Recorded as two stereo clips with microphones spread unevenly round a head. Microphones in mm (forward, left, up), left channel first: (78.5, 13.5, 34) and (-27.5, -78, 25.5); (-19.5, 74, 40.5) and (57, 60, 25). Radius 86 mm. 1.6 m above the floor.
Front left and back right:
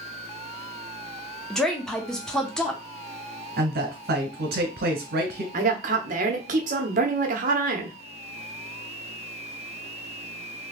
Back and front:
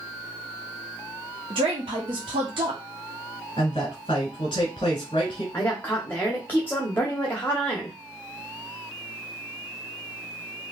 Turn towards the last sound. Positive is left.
turn(degrees=-125)